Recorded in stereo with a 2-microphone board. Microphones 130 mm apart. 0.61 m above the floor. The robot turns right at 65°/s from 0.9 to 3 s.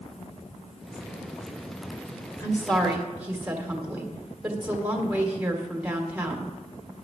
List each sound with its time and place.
2.4 s a woman speaking: 155° left, 1.9 m; by 6.5 s 165° right, 1.9 m